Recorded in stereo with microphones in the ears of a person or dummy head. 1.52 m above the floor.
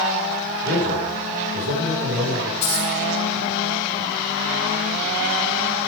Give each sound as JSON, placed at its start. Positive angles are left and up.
{"t": 0.6, "sound": "a man speaking", "side_deg": -55, "distance_m": 4.5}
{"t": 2.6, "sound": "a dropped coin", "side_deg": 35, "distance_m": 4.0}